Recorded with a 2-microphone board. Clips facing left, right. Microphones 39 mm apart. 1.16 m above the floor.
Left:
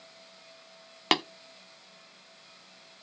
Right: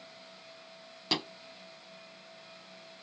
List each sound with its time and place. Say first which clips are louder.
1.1 s tapping: left 7 dB; 65° left (ahead or behind), 0.8 m